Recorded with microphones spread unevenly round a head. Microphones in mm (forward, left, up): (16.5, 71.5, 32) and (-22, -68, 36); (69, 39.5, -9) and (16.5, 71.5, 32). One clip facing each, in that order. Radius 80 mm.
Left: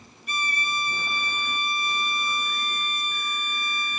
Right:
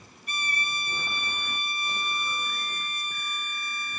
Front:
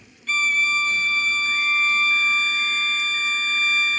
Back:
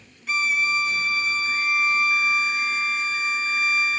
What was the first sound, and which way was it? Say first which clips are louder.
A violin: left 4 dB, front 1 dB; 60° left.